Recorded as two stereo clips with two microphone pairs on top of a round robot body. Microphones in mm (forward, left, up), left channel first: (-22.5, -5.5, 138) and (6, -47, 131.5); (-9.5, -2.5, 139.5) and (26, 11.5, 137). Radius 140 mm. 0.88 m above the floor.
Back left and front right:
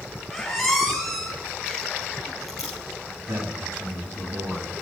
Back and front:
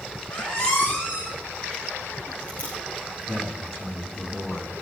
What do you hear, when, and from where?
0.3 s a squeak: 170° right, 0.9 m
3.2 s a man speaking: 75° right, 7 m